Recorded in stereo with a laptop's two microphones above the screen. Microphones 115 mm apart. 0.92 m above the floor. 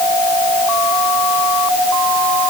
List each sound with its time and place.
Only background noise.